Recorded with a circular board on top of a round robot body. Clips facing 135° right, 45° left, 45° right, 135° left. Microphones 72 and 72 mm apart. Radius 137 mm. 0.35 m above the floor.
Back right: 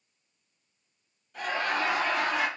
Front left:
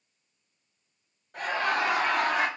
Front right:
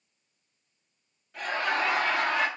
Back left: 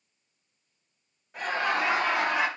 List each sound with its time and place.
1.3 s laughter: 65° left, 2 m